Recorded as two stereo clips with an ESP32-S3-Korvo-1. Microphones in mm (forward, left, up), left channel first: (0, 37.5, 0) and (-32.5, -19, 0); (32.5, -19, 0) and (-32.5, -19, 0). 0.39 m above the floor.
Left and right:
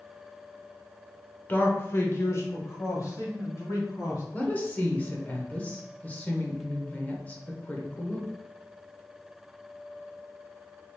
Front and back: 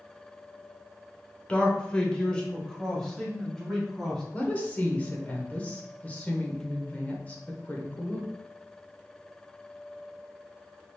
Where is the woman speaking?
30° left, 1.0 m.